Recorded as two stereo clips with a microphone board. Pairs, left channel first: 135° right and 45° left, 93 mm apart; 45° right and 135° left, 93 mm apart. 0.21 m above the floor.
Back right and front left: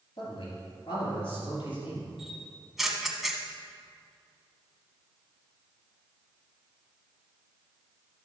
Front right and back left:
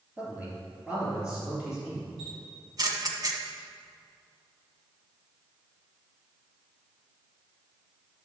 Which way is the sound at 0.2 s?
150° right.